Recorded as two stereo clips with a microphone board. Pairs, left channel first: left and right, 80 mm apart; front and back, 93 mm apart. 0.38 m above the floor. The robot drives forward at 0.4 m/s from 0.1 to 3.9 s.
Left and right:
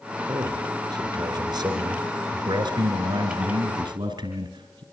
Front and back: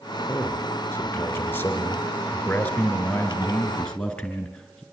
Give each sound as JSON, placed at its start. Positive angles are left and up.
{"t": 0.3, "sound": "a man speaking", "azimuth_deg": -65, "distance_m": 5.0}